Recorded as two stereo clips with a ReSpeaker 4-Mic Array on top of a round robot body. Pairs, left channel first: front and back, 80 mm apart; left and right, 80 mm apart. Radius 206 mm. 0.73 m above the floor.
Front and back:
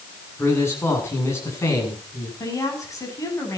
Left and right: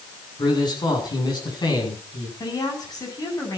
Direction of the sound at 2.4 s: 50° left.